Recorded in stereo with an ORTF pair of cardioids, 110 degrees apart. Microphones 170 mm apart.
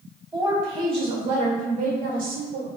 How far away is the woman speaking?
About 1.2 m.